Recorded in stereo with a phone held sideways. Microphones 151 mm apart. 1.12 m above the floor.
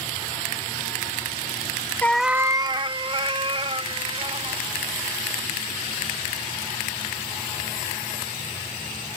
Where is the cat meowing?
15° left (ahead or behind); by 4.7 s 40° right (ahead or behind).